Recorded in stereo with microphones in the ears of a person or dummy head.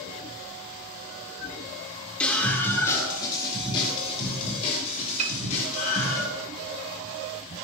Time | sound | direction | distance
2.2 | a scream | 5° left (ahead or behind) | 3 m
5.2 | a piano | 40° right (ahead or behind) | 1.0 m